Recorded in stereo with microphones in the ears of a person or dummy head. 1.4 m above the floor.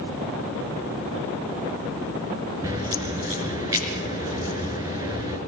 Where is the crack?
25° right (ahead or behind), 4 m.